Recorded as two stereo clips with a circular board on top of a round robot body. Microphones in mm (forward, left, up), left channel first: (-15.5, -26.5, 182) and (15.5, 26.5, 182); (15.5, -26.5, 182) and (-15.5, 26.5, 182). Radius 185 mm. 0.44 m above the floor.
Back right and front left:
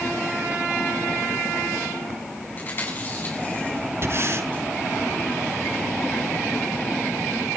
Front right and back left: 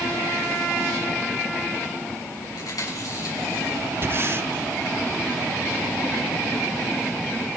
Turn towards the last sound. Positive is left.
turn(degrees=85)